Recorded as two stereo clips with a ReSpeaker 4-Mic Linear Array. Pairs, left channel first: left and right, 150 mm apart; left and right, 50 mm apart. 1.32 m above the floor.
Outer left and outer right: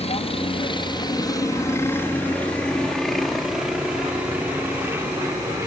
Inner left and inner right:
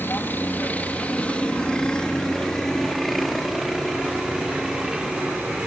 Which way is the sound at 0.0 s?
45° left (ahead or behind).